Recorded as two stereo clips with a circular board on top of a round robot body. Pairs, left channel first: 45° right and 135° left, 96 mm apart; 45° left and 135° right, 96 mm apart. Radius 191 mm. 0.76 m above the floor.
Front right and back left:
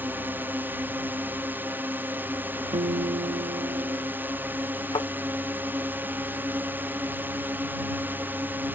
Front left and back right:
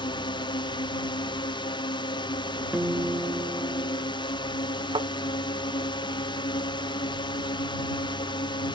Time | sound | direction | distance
0.0 | a drone | 65° left | ?
2.7 | a guitar | 150° left | ?
4.9 | a thud | 95° right | ?